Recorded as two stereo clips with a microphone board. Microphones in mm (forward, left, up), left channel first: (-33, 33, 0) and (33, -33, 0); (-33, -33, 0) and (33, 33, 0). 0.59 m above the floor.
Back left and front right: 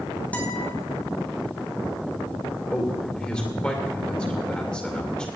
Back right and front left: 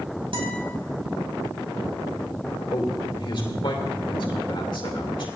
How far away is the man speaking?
About 2.5 m.